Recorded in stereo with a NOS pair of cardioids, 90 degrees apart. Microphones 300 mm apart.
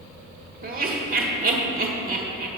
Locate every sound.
0.6 s laughter: 45° right, 1.9 m